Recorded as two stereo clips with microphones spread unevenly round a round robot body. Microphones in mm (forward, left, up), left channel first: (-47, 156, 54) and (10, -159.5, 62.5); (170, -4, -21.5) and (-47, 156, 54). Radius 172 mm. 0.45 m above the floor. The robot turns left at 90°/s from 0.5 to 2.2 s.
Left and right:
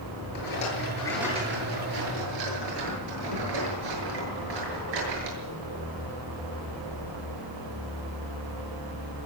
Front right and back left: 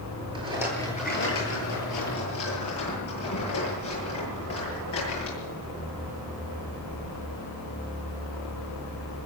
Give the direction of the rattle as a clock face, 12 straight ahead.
10 o'clock.